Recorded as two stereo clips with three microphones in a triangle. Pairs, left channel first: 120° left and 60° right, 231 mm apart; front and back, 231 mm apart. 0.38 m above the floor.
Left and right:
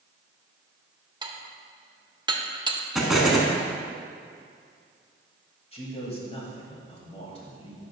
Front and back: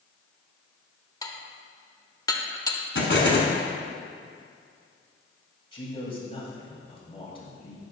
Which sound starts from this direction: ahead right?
Dishes clattering, at 1.2 s.